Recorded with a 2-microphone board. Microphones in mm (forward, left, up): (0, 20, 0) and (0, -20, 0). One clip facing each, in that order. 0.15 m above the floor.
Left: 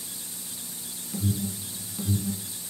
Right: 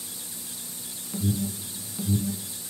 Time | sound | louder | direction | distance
1.1 | an alarm | right 2 dB | 10° right (ahead or behind) | 0.9 m